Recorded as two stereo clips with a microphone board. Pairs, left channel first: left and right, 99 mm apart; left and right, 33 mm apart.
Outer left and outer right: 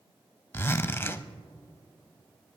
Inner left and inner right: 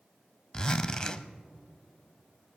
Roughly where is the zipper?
Left.